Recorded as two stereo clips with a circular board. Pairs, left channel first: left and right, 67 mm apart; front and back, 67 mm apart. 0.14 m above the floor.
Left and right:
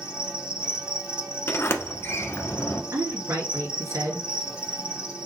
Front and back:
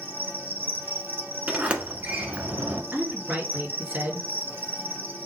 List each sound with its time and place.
0.0 s an insect: 155° right, 1.0 m
1.5 s a sliding door: 115° left, 0.9 m
2.9 s a woman speaking: 110° right, 2.5 m